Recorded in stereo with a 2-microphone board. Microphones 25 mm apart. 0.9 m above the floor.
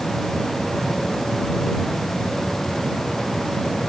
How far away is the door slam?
No door slam in this recording.